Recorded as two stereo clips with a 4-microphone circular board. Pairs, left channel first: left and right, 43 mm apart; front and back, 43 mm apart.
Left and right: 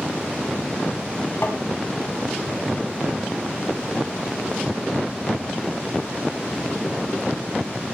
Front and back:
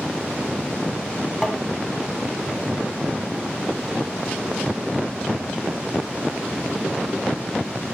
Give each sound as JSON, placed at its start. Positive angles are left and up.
{"t": 1.4, "sound": "tapping", "azimuth_deg": 95, "distance_m": 1.6}